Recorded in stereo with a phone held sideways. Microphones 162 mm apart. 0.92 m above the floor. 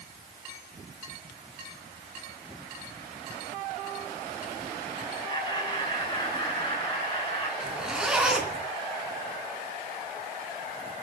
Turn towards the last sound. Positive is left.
turn(degrees=-5)  # may be behind; listen again after turning